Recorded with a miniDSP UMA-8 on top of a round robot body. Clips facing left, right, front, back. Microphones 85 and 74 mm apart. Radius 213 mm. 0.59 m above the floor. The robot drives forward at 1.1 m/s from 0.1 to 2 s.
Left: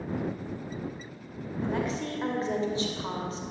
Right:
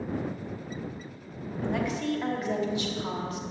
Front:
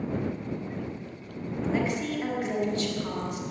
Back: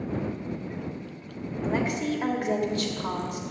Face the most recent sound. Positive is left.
turn(degrees=145)